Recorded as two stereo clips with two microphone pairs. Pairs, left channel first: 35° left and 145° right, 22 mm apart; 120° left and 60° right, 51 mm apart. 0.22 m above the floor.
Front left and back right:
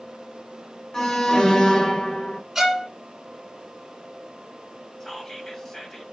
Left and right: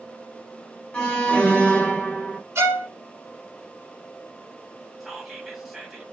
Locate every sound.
0.9 s an alarm: 65° left, 1.5 m
2.5 s a violin: 70° right, 1.5 m
5.0 s whispering: 25° left, 1.1 m